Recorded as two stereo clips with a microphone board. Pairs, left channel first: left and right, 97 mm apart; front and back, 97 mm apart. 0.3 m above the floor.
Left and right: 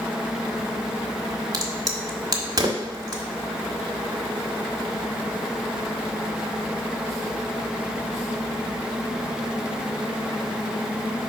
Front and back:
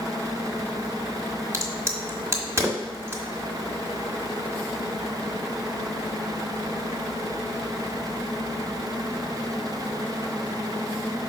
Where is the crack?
125° right, 1.3 m.